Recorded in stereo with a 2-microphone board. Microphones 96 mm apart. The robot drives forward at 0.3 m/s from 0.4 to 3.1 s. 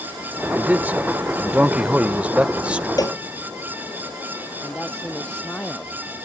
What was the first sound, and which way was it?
A man speaking, 20° right (ahead or behind).